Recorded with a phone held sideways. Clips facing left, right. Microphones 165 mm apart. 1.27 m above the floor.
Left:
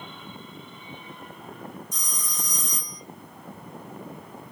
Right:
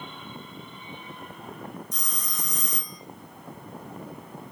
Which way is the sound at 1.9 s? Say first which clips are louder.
Even; 60° right (ahead or behind).